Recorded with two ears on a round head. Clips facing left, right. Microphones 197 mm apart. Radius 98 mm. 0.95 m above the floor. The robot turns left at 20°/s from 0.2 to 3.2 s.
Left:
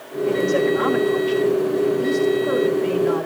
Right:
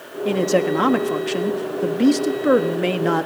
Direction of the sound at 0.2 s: 45° right.